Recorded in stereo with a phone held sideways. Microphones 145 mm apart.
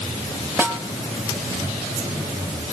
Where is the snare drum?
15° right (ahead or behind), 4 m.